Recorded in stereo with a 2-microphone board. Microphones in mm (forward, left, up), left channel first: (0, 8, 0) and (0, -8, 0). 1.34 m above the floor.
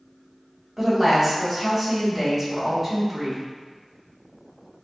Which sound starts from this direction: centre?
A woman speaking, at 0.8 s.